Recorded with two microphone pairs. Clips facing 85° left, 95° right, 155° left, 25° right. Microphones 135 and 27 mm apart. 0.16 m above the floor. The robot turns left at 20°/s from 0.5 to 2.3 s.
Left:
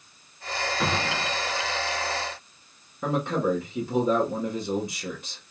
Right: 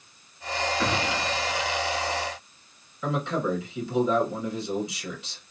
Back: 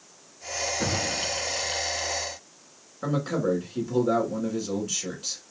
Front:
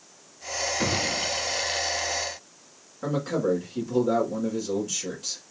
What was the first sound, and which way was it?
A gunshot, 10° left.